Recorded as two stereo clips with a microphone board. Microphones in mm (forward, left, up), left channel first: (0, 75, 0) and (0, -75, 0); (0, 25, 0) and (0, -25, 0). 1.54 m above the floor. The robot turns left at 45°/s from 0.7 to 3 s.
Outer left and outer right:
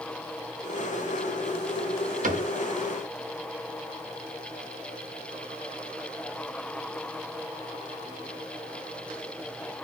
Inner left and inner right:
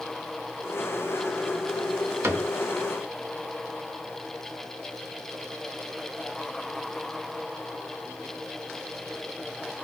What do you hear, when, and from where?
2.2 s a cupboard door: 55° right (ahead or behind), 0.6 m; by 2.5 s 50° right (ahead or behind), 0.6 m